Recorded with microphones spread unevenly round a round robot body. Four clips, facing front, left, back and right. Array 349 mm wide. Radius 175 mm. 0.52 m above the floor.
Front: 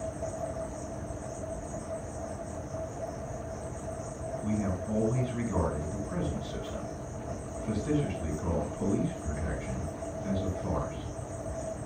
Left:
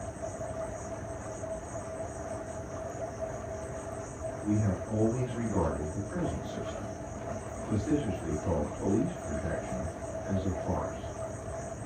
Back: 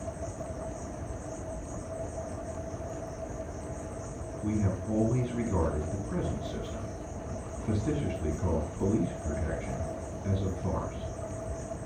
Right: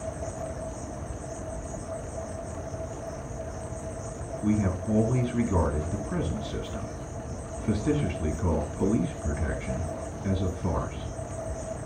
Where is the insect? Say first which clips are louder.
Right 3 dB, front 3 dB; 80° right, 7 m.